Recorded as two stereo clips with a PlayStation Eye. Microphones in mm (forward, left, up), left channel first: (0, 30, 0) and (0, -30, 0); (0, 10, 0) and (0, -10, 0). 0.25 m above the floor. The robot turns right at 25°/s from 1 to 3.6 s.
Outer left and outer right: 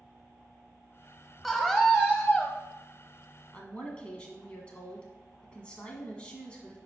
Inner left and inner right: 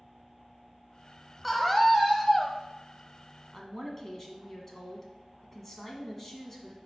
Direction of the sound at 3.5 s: 15° left (ahead or behind).